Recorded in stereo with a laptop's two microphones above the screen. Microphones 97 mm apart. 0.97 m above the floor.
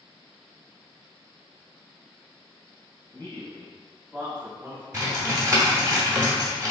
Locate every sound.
3.1 s a man speaking: 25° left (ahead or behind), 0.7 m; by 4.8 s 20° right (ahead or behind), 1.2 m
4.9 s typing on a keyboard: 30° right (ahead or behind), 1.0 m